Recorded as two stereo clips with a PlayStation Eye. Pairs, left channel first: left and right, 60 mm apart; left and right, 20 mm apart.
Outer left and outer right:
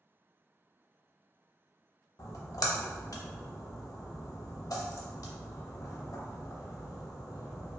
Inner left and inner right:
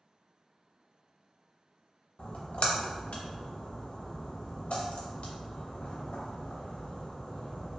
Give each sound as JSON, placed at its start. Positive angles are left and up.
{"t": 2.2, "sound": "a splash", "side_deg": 80, "distance_m": 0.5}